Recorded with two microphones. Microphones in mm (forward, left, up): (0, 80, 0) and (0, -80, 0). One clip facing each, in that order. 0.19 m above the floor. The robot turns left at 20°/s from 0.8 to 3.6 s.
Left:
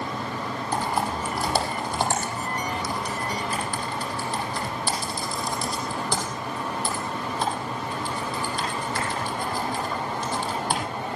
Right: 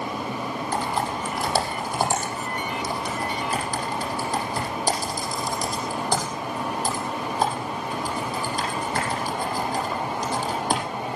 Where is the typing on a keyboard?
15° left (ahead or behind), 6.5 m; by 10.8 s 40° right (ahead or behind), 6.5 m.